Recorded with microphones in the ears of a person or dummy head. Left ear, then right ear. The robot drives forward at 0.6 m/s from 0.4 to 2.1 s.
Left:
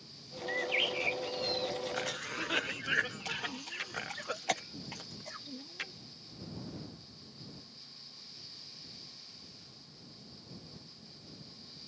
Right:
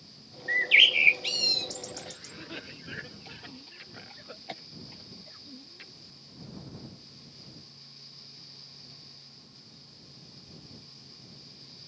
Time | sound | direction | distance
0.5 | a bird | 55° right (ahead or behind) | ?
1.9 | a cough | 45° left (ahead or behind) | ?